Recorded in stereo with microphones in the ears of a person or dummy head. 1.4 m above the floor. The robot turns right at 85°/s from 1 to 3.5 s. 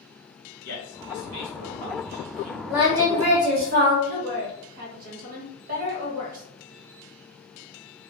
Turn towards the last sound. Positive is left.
turn(degrees=-50)  # may be behind; listen again after turning